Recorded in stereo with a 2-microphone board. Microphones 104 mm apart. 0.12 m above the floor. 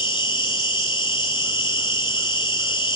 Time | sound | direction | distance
0.0 | an insect | 50° left (ahead or behind) | 0.8 m